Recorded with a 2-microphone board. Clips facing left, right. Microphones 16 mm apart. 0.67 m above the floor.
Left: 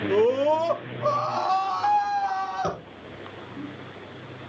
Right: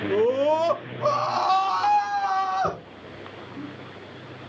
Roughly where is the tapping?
Left.